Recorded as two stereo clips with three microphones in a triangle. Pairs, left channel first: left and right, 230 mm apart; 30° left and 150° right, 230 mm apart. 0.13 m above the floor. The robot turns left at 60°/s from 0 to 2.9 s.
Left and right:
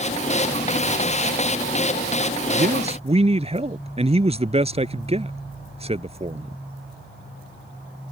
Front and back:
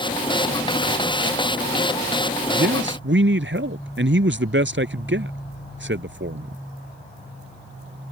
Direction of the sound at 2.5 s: 125° right.